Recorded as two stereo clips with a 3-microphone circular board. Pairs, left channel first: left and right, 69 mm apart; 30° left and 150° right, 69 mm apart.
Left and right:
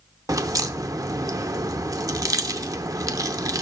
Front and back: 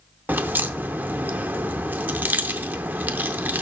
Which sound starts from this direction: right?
A crack, at 0.3 s.